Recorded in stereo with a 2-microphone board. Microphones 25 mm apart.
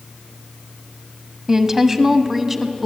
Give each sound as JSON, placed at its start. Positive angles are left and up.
{"t": 1.5, "sound": "a woman speaking", "side_deg": -15, "distance_m": 1.1}